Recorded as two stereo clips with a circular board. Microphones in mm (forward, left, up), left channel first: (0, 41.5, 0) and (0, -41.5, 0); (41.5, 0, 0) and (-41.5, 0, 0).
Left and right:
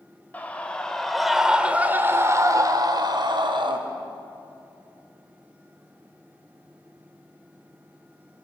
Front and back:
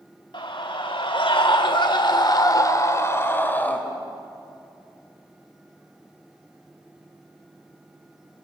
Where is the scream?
20° left, 3.5 m; by 3.8 s 70° right, 3.5 m.